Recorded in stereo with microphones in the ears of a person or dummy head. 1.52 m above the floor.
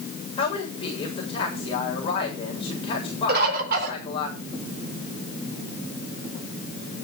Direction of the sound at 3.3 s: 55° right (ahead or behind).